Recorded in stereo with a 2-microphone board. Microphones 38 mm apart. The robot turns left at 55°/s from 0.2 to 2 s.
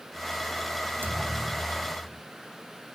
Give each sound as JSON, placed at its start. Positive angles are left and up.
{"t": 1.0, "sound": "a thud", "azimuth_deg": -120, "distance_m": 1.9}